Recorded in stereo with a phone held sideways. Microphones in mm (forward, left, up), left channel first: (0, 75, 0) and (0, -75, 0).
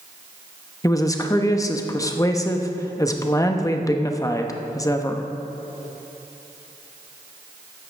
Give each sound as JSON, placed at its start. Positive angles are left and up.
{"t": 0.8, "sound": "a woman speaking", "side_deg": 20, "distance_m": 0.8}